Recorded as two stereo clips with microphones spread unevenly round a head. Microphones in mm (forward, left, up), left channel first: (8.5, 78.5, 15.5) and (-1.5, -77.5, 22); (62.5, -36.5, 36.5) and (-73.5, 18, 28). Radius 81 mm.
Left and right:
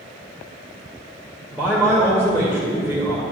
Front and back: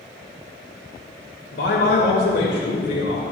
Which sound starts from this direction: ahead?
A man speaking, at 1.5 s.